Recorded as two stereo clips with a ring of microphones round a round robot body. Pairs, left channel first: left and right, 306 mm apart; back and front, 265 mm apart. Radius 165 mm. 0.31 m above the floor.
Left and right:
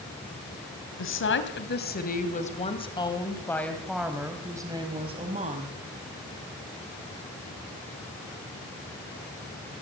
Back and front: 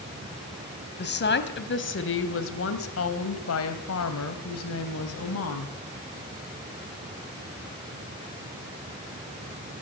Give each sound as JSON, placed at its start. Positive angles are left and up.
{"t": 1.0, "sound": "a woman speaking", "azimuth_deg": 135, "distance_m": 2.5}